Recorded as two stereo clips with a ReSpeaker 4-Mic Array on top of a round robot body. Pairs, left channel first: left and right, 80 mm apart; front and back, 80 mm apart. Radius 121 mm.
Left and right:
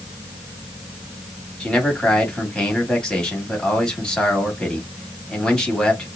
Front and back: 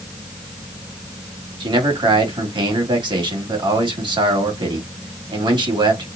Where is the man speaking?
170° left, 2.5 m.